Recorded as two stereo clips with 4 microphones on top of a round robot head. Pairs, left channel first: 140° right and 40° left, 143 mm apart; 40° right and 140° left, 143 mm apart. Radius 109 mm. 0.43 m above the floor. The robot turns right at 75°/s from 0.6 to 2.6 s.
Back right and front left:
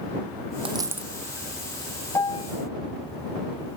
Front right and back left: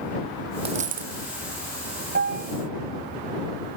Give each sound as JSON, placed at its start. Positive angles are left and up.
{"t": 0.7, "sound": "a dropped coin", "azimuth_deg": 90}
{"t": 2.1, "sound": "a piano", "azimuth_deg": 145}